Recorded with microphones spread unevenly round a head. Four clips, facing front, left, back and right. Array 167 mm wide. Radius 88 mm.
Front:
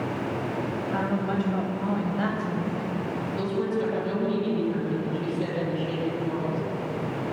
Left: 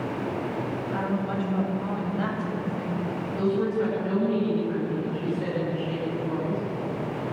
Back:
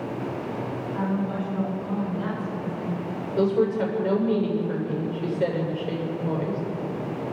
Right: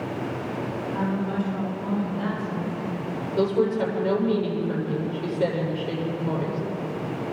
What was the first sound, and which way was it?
A woman speaking, 15° left.